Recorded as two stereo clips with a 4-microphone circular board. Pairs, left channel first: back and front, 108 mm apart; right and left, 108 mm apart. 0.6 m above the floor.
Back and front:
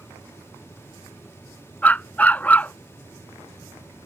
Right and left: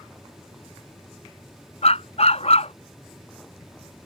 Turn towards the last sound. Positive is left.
turn(degrees=-105)